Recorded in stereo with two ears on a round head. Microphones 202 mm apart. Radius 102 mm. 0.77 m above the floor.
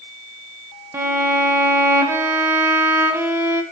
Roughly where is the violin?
Centre.